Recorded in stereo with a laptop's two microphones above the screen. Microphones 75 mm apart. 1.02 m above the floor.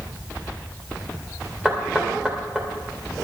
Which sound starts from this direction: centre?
Knocking, at 1.6 s.